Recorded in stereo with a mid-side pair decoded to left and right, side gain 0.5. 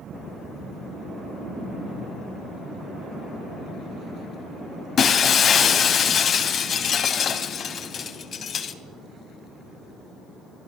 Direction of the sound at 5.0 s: 50° left.